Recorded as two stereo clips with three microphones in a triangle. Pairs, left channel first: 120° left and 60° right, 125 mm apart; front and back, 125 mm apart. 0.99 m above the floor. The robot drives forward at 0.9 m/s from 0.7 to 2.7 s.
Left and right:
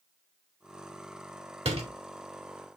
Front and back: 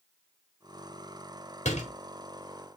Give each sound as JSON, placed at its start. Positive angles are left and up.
{"t": 1.6, "sound": "a door slam", "azimuth_deg": -25, "distance_m": 2.5}